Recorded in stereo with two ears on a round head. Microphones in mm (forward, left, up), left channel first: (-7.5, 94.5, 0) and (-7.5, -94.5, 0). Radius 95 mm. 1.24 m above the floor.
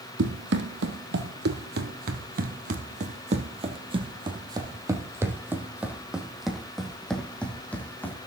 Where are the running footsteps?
65° right (ahead or behind), 2.5 m; by 8.2 s 10° left (ahead or behind), 3.5 m.